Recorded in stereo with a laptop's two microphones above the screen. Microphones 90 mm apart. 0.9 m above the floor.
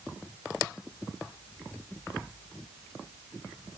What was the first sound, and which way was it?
Only background noise.